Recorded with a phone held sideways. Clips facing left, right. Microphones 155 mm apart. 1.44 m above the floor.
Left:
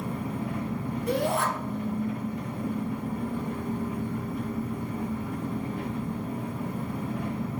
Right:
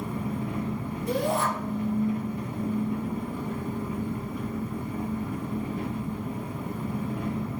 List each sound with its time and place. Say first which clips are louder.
0.0 s an engine running: right 1 dB; 45° left (ahead or behind), 2 m
1.1 s a shout: even; 65° left (ahead or behind), 0.8 m